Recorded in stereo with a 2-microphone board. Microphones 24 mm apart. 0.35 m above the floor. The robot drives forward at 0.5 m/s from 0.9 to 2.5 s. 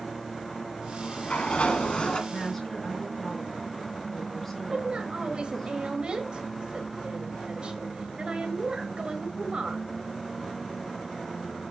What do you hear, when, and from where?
0.8 s a sliding door: 65° left (ahead or behind), 1.3 m; by 2.2 s 45° left (ahead or behind), 1.6 m
2.3 s a woman speaking: 10° left (ahead or behind), 5.5 m
4.7 s a woman speaking: 45° right (ahead or behind), 1.6 m